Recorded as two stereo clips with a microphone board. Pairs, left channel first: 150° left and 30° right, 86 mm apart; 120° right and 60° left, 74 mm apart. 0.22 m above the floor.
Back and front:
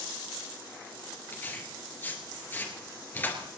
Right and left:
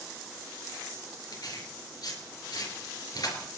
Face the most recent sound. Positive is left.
turn(degrees=-145)